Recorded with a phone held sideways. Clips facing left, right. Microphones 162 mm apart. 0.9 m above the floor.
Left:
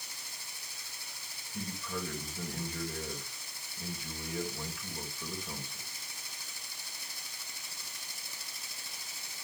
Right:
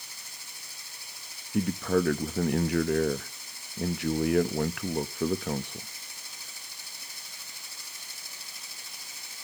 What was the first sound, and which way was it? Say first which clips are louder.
A man speaking: right 14 dB; 65° right (ahead or behind).